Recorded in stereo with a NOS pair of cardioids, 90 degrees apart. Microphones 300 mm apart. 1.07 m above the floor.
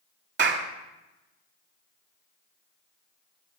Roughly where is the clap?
Ahead right.